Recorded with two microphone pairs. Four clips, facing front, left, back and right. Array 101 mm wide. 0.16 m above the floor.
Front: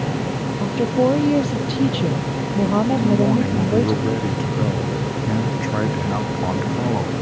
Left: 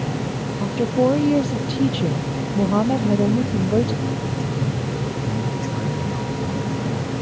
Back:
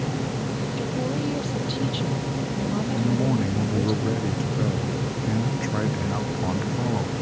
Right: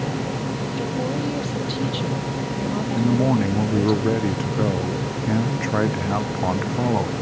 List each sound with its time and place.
0.6 s a woman speaking: 40° left
3.0 s a man speaking: 60° right